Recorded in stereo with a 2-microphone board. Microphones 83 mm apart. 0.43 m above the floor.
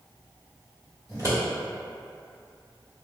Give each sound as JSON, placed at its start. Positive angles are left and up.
{"t": 1.1, "sound": "scissors", "side_deg": -40, "distance_m": 1.9}